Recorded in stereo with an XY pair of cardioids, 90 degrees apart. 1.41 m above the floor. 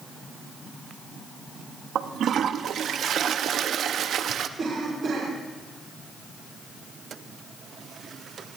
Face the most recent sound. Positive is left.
turn(degrees=-45)